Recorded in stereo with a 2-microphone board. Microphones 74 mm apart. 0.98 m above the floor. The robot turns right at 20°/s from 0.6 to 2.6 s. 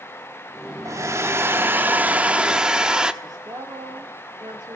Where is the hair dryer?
45° right, 0.9 m; by 3.1 s 10° right, 0.9 m.